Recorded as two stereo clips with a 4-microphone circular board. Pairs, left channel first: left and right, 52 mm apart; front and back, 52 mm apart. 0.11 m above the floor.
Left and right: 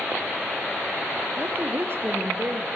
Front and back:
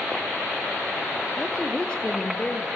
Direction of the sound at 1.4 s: 65° right.